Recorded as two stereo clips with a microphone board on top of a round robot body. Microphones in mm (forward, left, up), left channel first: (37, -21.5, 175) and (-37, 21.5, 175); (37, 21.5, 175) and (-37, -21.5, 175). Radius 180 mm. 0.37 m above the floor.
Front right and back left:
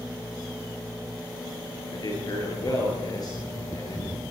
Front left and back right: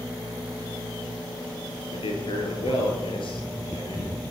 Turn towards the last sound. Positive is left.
turn(degrees=10)